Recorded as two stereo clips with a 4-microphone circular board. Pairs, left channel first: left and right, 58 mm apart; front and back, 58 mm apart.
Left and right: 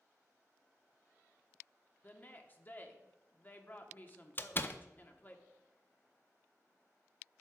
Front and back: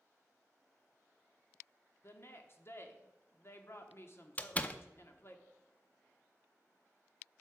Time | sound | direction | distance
2.0 | a woman speaking | 35° left | 1.1 m
4.4 | a door slam | 55° left | 0.5 m